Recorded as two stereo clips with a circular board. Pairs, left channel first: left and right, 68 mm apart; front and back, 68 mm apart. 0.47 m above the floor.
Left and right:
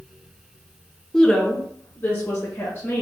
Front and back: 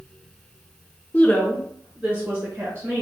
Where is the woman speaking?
5° left, 0.8 m; by 3.0 s 135° left, 1.7 m.